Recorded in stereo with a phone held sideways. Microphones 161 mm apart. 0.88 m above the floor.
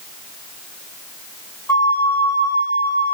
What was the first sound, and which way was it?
A flute, 15° left (ahead or behind).